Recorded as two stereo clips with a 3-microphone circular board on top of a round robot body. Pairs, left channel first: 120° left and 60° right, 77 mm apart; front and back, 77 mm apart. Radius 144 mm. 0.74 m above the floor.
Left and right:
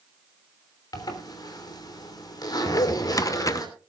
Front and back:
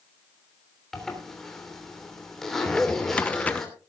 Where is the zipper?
85° left, 3 m.